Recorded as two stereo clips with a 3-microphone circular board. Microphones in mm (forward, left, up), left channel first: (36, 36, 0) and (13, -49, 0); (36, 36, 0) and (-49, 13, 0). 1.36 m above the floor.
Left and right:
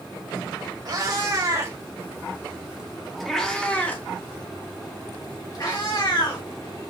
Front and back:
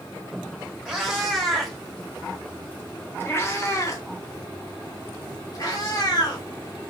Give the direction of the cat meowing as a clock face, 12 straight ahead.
3 o'clock.